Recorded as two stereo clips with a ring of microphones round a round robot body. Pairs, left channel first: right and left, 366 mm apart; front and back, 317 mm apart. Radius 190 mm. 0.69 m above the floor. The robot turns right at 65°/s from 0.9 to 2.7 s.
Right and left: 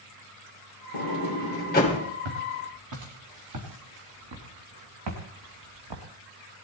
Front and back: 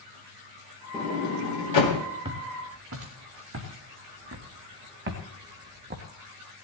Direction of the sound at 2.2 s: 105° left.